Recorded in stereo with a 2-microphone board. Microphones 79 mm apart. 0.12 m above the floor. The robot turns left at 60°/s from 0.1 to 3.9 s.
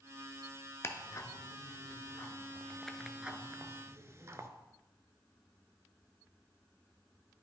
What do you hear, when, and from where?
0.8 s ticking: 35° left (ahead or behind), 0.5 m; by 4.5 s 35° right (ahead or behind), 0.5 m